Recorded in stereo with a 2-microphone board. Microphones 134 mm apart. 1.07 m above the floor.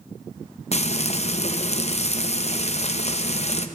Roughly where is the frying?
Left.